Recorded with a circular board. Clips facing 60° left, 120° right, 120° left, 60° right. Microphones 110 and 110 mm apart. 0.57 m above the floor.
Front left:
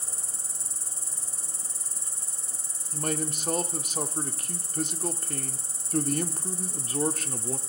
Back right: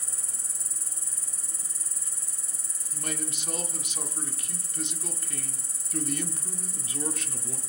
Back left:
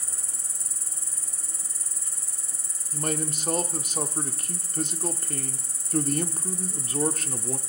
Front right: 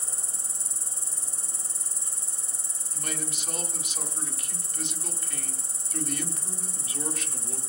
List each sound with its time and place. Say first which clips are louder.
0.0 s an insect: front left 3 dB, front right 2 dB; straight ahead, 1.1 m
2.9 s a man speaking: front left 6 dB, back left 7 dB; 90° left, 1.2 m